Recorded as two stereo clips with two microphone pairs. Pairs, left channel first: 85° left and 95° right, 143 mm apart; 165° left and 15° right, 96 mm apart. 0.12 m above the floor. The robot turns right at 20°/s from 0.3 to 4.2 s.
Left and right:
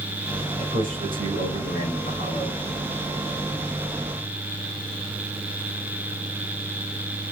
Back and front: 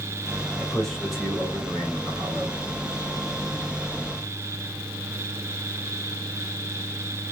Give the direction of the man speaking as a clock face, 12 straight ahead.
4 o'clock.